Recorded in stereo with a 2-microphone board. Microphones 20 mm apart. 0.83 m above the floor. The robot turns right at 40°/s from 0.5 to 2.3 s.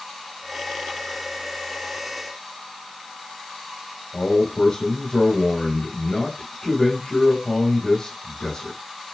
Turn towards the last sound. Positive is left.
turn(degrees=40)  # may be behind; listen again after turning